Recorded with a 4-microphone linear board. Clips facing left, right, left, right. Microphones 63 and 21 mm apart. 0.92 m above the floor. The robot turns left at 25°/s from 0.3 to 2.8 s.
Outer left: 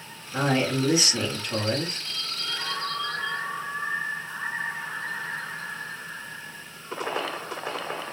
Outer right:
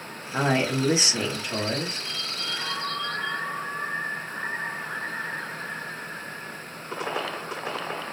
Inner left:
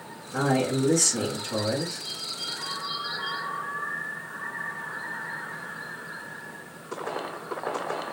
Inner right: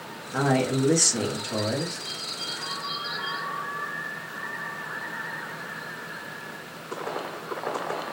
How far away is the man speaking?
About 1.0 m.